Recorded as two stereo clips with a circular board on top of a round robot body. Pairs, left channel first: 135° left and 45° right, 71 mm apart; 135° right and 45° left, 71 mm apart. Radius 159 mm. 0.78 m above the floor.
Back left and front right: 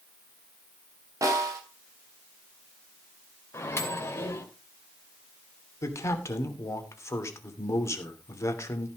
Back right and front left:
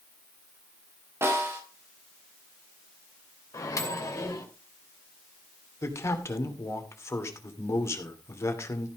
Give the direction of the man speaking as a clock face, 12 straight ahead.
6 o'clock.